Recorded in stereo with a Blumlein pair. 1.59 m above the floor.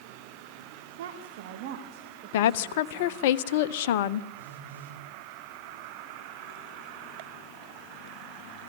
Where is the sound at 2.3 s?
50° left, 1.0 m.